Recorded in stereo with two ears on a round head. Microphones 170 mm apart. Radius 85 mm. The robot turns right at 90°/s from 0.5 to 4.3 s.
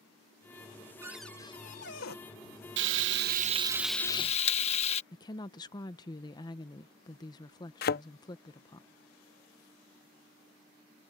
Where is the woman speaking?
20° left (ahead or behind).